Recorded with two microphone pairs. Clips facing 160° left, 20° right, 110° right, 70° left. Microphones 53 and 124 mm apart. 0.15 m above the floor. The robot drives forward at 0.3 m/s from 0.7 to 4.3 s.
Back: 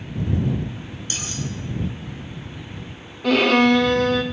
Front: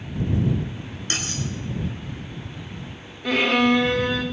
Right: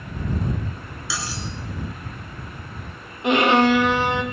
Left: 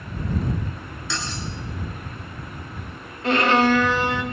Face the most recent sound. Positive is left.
turn(degrees=180)